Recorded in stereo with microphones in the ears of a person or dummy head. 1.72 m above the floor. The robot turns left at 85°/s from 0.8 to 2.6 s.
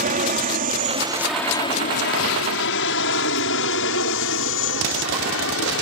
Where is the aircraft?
40° right (ahead or behind); by 5.8 s 75° left (ahead or behind).